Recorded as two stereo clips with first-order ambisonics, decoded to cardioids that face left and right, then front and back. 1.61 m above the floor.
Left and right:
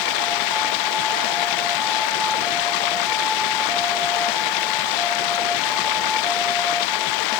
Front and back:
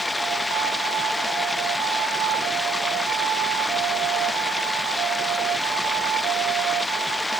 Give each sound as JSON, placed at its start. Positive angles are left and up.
{"t": 0.0, "sound": "running water", "azimuth_deg": 90}